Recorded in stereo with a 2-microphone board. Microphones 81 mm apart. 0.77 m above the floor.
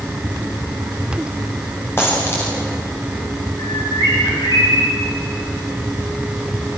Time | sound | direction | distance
2.0 | a dropped coin | 30° left (ahead or behind) | 10 m
3.6 | a bird | 65° left (ahead or behind) | 9.5 m